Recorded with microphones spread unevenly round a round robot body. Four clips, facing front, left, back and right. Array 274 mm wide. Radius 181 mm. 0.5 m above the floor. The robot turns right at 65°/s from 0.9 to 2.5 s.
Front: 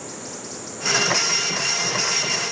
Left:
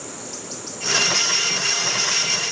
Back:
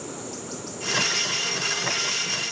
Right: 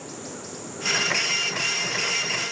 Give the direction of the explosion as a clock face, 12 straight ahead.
I don't hear an explosion.